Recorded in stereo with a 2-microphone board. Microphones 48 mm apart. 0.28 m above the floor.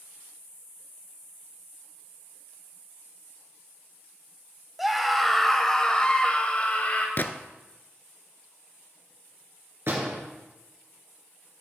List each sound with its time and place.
4.8 s a scream: 5° right (ahead or behind), 1.1 m; by 7.1 s 30° left (ahead or behind), 1.1 m
7.2 s a gunshot: 40° left (ahead or behind), 0.6 m
9.9 s a door slam: 55° right (ahead or behind), 3 m